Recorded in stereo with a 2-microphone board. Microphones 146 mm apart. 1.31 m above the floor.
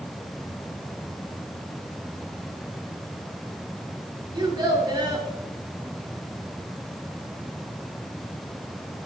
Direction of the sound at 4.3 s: 35° right (ahead or behind).